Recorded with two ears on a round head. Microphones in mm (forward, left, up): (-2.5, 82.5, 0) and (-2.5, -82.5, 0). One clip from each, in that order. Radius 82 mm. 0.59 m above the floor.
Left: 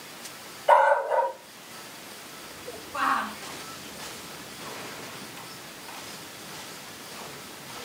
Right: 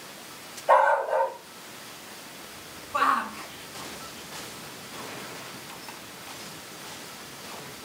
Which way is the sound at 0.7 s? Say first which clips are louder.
Left 1 dB; 45° left (ahead or behind).